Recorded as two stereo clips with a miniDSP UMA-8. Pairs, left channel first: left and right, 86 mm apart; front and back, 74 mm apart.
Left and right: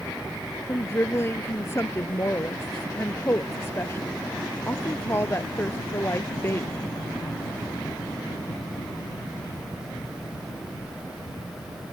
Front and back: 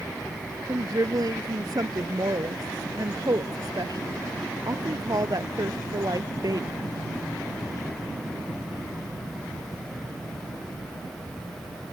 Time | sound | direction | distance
0.7 | a woman speaking | 150° left | ?